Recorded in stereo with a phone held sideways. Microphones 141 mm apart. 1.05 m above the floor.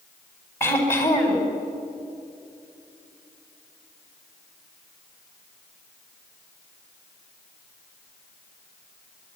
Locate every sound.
0.6 s throat clearing: 15° left (ahead or behind), 4.5 m